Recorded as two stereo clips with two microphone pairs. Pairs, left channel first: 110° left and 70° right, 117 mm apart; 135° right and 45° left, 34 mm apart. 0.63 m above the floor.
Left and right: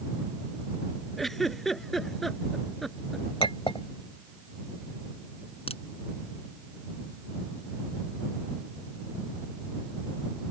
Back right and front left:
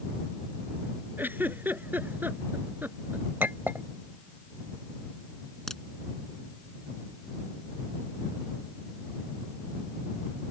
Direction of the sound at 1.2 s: 25° left.